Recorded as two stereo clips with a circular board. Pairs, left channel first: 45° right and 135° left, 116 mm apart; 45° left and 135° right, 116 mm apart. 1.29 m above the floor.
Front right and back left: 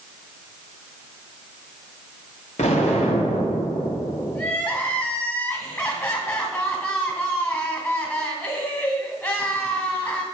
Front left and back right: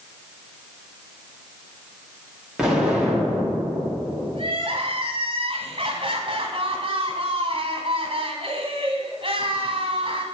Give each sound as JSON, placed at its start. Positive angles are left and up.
{"t": 2.6, "sound": "an explosion", "azimuth_deg": -50, "distance_m": 1.9}
{"t": 4.3, "sound": "crying", "azimuth_deg": -110, "distance_m": 1.8}